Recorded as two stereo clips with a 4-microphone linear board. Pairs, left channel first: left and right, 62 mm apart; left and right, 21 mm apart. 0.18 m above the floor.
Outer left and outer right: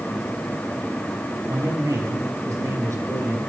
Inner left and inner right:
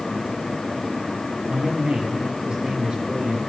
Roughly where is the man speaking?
Right.